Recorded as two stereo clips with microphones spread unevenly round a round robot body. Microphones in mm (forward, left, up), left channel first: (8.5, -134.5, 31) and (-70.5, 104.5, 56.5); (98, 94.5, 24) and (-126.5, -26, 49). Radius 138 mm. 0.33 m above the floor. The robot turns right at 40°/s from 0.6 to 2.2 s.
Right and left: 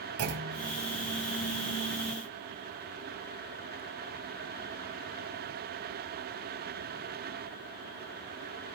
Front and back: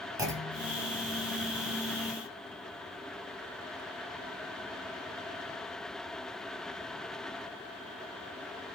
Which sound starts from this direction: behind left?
A clunk, at 0.2 s.